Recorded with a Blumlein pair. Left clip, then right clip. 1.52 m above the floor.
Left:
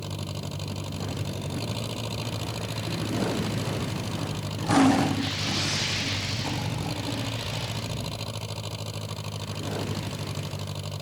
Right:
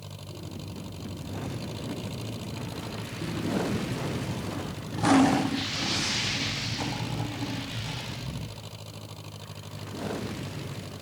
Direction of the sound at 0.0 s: 70° left.